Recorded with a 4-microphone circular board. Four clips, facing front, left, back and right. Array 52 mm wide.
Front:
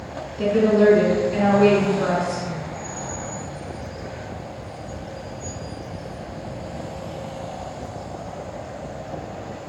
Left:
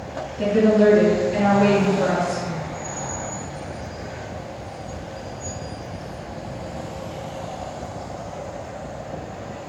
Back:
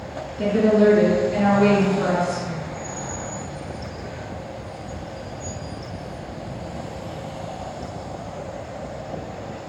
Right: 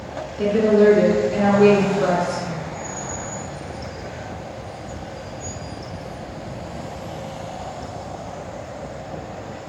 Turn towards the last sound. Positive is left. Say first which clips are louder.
# right 1 dB, even
turn(degrees=-70)